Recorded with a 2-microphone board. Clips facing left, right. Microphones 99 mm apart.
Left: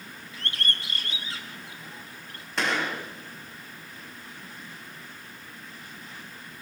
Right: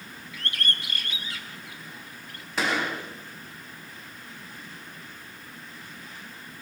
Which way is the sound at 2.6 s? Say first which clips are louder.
Right 1 dB; 5° right (ahead or behind).